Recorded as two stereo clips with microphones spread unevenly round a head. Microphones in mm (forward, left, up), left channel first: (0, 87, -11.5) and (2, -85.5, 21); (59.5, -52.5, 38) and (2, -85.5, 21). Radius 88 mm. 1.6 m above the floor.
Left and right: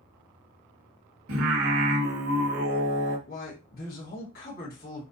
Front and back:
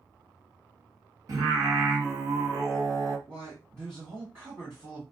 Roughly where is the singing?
Right.